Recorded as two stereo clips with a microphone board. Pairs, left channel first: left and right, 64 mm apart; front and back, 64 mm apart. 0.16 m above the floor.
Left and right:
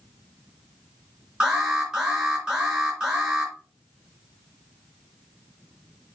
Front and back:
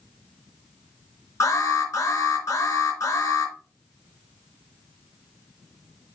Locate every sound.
1.4 s an alarm: 20° right, 3.5 m